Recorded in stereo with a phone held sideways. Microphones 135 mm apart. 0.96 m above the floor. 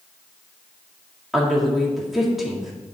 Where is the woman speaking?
Centre (ahead or behind), 1.6 m.